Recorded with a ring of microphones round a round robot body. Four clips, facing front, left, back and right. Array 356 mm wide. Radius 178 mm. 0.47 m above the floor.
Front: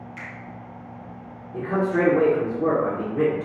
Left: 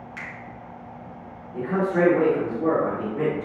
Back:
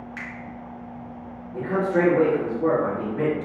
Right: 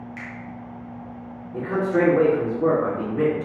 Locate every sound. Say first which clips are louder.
0.2 s a finger snap: right 1 dB, back 3 dB; 145° left, 2 m
1.5 s a man speaking: right 1 dB, even; 50° right, 1.5 m